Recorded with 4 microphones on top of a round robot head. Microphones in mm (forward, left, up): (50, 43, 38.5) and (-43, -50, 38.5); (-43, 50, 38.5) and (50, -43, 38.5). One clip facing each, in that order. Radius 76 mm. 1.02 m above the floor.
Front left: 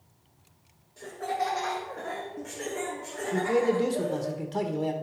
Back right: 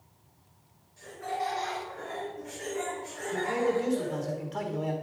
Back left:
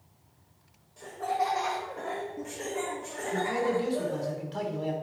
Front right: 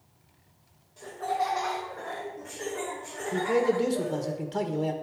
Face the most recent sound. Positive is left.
turn(degrees=-5)